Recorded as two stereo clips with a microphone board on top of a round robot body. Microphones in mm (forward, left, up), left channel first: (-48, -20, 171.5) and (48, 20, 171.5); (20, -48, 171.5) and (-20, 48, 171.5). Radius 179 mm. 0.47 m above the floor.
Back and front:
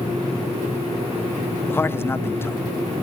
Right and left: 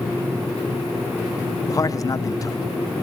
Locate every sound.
1.7 s a man speaking: 100° right, 1.5 m